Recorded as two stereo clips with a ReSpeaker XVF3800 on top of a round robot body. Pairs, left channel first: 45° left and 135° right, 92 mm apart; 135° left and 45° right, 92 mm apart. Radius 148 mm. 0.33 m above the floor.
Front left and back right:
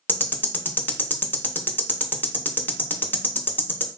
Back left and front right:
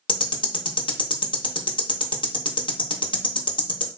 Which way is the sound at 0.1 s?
110° left.